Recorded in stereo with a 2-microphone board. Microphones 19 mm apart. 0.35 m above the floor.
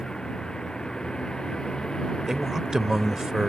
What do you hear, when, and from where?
0.0 s a vehicle: 45° left (ahead or behind)
2.3 s a man speaking: 30° right (ahead or behind)